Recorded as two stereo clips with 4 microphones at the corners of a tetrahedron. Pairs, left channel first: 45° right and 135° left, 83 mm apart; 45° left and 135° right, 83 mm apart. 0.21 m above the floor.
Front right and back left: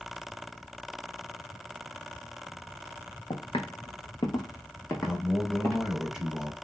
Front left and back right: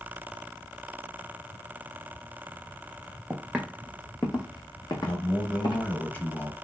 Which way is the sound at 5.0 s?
65° left.